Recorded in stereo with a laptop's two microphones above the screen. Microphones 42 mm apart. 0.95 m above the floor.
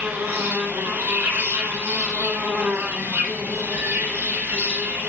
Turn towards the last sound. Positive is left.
turn(degrees=-80)